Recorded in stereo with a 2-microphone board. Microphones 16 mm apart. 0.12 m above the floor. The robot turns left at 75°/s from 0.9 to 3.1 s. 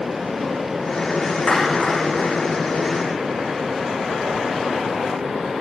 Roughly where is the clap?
Left.